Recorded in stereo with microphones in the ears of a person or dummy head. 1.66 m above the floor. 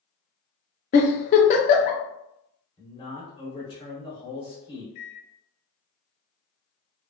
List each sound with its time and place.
0.9 s a giggle: 40° left (ahead or behind), 0.6 m
2.8 s a man speaking: 20° left (ahead or behind), 1.1 m
5.0 s a microwave: 60° left (ahead or behind), 0.9 m